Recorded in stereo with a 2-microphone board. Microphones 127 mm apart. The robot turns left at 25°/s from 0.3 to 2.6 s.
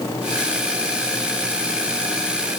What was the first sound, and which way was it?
Only background noise.